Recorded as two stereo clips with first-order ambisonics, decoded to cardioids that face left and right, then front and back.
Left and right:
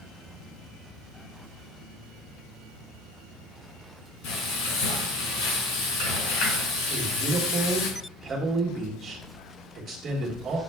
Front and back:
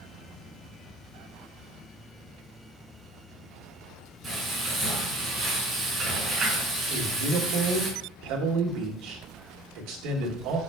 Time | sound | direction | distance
4.2 | frying | 100° left | 4 m
6.9 | a man speaking | 155° right | 1.7 m